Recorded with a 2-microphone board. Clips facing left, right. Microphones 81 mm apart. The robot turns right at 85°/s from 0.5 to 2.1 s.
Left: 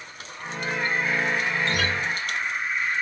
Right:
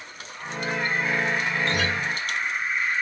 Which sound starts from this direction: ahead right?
A guitar, at 1.6 s.